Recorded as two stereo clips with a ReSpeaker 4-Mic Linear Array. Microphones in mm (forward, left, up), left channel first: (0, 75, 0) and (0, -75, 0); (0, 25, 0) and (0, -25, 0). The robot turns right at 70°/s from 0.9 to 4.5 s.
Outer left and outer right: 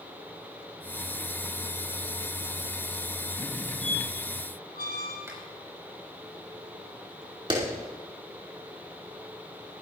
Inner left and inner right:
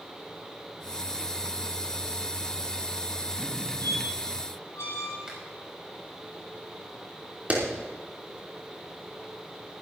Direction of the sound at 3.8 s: 45° left (ahead or behind).